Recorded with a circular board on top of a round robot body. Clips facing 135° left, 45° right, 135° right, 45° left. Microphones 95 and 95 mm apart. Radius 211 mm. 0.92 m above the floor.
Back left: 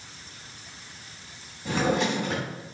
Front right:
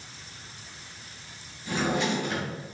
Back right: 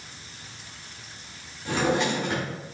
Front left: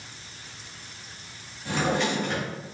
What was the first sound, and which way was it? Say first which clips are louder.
A drawer: back left 2 dB, back right 1 dB; 140° left.